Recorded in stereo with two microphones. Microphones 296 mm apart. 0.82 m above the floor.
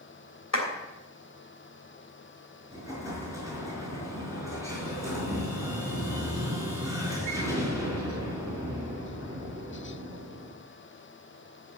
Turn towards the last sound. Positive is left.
turn(degrees=-10)  # may be behind; listen again after turning